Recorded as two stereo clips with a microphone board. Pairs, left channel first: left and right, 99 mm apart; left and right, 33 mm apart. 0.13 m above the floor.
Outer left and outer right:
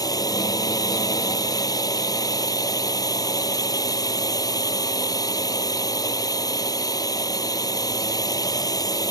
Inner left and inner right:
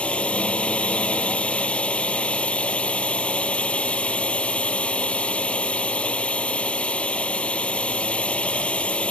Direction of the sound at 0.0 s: 40° left (ahead or behind).